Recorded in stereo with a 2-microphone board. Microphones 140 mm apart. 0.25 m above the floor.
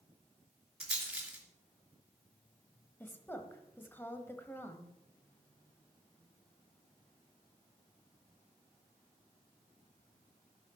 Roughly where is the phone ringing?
I don't hear a phone ringing.